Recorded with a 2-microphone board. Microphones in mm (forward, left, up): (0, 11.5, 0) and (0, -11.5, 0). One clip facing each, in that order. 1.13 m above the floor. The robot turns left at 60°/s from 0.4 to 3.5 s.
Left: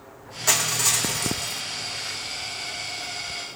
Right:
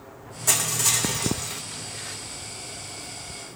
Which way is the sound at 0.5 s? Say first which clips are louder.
Left 2 dB; 30° left.